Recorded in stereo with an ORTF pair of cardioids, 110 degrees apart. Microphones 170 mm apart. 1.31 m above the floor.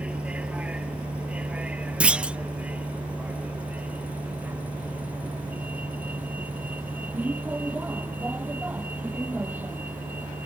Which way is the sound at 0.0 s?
5° right.